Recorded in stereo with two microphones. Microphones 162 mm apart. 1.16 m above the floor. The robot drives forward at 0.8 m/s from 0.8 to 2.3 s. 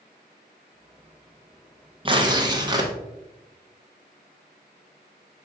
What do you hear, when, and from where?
2.0 s tearing paper: 30° right (ahead or behind), 0.8 m; by 2.9 s 25° right (ahead or behind), 0.9 m